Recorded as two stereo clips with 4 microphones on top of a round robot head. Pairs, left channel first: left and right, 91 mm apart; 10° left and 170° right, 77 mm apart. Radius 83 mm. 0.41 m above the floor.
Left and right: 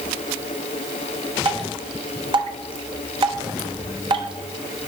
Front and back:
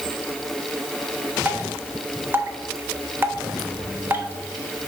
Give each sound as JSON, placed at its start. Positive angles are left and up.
{"t": 1.4, "sound": "dripping", "azimuth_deg": -110, "distance_m": 1.0}